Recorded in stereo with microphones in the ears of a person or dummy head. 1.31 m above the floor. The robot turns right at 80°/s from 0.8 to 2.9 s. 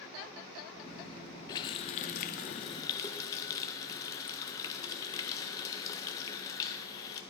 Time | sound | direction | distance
1.5 | a running tap | 35° left | 0.5 m